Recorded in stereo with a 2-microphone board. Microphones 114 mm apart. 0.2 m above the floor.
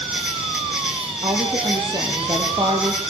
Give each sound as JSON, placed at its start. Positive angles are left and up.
{"t": 0.0, "sound": "an insect", "side_deg": -5, "distance_m": 8.5}
{"t": 1.2, "sound": "a woman speaking", "side_deg": -35, "distance_m": 7.0}